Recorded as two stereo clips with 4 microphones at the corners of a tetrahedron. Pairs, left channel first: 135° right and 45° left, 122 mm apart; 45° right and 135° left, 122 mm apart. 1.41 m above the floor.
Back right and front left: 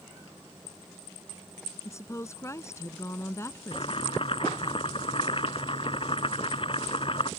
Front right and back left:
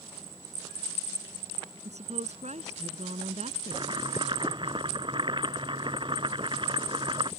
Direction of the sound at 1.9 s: 160° left.